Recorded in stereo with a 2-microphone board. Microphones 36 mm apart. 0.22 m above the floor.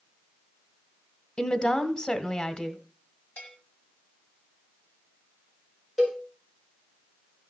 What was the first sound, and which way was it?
A woman speaking, 30° left (ahead or behind).